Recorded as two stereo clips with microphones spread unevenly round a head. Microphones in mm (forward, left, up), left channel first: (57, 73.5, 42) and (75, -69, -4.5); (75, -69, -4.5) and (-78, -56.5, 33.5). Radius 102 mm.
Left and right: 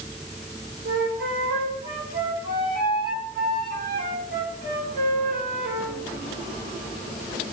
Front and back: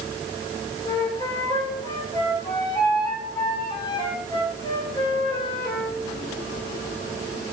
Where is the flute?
70° right, 3.5 m.